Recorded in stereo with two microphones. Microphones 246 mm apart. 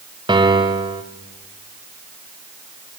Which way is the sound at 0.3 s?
20° right (ahead or behind).